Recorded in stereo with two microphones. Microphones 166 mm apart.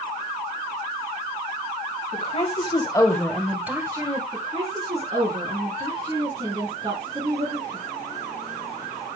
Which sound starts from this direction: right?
A woman speaking, at 4.3 s.